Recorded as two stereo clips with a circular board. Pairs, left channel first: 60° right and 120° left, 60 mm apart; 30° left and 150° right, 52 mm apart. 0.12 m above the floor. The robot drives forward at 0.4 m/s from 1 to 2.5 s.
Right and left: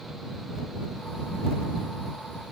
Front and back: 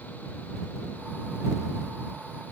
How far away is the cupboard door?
No cupboard door in this recording.